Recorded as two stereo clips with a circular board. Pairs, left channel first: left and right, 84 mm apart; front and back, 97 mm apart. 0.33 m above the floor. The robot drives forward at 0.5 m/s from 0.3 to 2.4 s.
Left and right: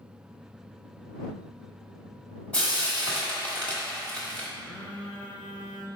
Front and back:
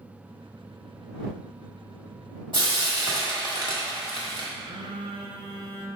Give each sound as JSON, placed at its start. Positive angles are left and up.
{"t": 2.5, "sound": "frying", "azimuth_deg": 160, "distance_m": 1.1}
{"t": 4.6, "sound": "a phone buzzing", "azimuth_deg": 165, "distance_m": 0.8}